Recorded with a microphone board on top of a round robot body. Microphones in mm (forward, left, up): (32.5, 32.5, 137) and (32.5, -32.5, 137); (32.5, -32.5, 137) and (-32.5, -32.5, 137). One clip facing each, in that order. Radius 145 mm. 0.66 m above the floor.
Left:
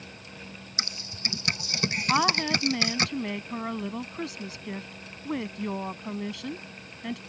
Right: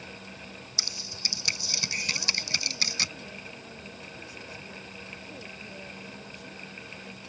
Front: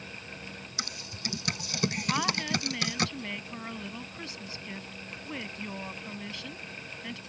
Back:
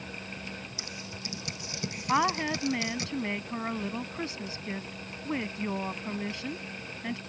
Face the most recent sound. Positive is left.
turn(degrees=110)